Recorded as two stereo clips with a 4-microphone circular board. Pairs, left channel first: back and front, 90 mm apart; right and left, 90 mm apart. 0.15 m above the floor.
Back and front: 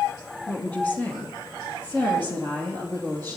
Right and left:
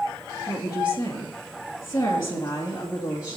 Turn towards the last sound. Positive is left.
turn(degrees=-115)